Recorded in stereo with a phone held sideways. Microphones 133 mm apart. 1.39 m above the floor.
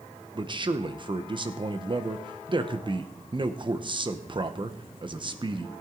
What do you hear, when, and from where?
0.3 s a man speaking: 35° right (ahead or behind), 0.9 m